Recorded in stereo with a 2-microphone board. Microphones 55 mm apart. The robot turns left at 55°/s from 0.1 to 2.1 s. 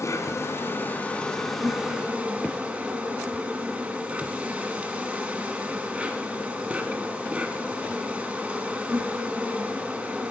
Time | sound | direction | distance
0.0 | an insect | 85° left | 1.5 m